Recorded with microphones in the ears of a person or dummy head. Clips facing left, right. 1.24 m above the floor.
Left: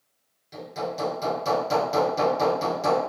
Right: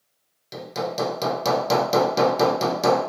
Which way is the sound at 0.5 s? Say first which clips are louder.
Right 3 dB; 75° right (ahead or behind).